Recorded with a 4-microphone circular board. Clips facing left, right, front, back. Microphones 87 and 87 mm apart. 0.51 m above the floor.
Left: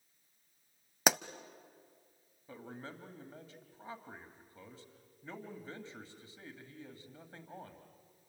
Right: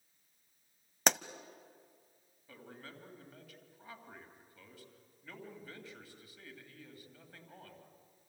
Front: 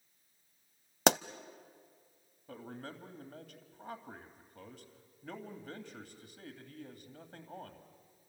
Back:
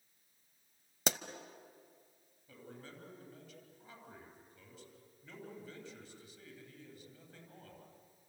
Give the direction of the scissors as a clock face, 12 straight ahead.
I don't hear scissors.